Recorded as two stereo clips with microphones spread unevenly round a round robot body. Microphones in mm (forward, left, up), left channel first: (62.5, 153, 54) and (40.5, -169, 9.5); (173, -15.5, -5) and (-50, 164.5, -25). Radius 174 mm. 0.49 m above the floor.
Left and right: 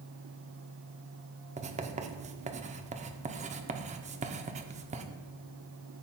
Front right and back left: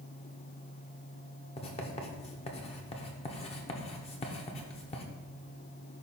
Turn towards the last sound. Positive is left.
turn(degrees=-95)